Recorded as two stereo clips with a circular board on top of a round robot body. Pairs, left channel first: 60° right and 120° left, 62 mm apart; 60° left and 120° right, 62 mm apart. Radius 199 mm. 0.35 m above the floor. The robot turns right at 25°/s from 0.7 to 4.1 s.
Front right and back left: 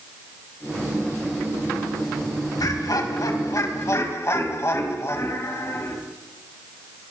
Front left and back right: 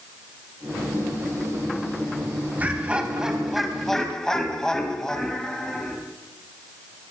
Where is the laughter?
55° right, 3.5 m; by 6.0 s 20° right, 3.5 m.